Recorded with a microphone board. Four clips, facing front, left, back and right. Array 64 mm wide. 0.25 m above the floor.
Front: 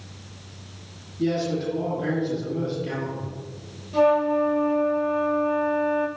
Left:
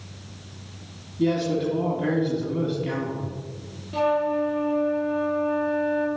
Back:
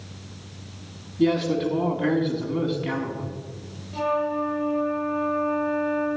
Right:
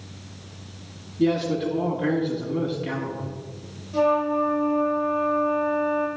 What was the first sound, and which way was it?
A man speaking, 175° right.